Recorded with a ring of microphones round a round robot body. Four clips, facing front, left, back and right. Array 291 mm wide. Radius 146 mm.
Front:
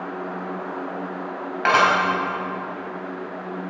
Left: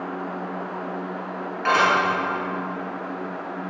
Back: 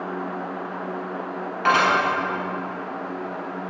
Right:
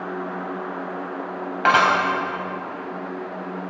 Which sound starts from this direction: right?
Dishes clattering, at 1.6 s.